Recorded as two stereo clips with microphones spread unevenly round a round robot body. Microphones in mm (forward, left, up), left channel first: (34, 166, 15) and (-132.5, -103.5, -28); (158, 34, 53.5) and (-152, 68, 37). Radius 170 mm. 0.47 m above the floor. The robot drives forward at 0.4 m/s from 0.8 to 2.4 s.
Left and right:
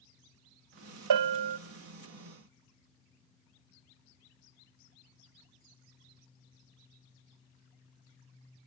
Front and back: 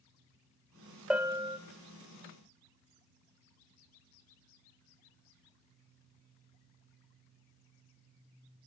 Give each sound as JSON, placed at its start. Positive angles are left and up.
{"t": 1.1, "sound": "a bell", "azimuth_deg": -100, "distance_m": 0.7}